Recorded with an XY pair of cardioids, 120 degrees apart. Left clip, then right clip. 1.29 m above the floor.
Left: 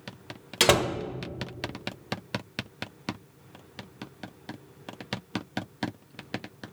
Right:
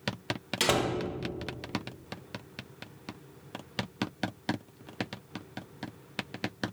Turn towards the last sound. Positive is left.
turn(degrees=35)